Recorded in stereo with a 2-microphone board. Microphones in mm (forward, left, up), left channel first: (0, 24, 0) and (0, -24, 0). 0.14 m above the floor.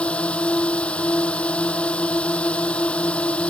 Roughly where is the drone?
Left.